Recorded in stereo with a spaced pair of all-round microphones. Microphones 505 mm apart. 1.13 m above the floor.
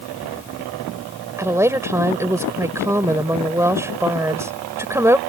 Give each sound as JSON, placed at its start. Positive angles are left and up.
{"t": 1.4, "sound": "a woman speaking", "side_deg": -5}